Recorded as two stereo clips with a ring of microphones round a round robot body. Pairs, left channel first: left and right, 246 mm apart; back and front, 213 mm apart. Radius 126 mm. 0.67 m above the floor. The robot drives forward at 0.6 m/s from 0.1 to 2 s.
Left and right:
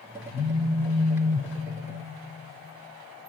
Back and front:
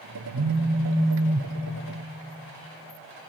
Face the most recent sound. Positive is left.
turn(degrees=-15)